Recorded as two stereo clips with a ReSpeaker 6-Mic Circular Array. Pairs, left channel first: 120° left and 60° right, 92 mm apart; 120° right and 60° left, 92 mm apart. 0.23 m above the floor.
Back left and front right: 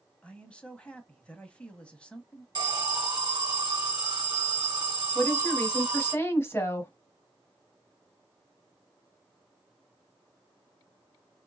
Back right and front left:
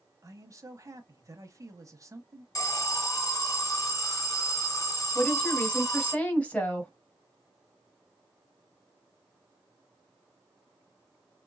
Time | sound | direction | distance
0.2 | a man speaking | 50° left | 1.1 m
2.5 | an alarm | 80° right | 1.2 m
5.2 | a woman speaking | 170° left | 1.5 m